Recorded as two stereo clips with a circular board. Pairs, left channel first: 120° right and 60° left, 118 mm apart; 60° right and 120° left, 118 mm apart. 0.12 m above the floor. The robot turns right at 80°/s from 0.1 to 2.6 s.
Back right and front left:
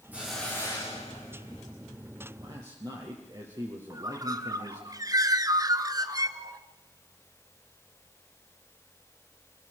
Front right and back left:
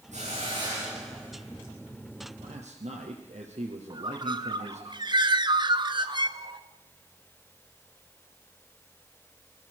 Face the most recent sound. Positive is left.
turn(degrees=100)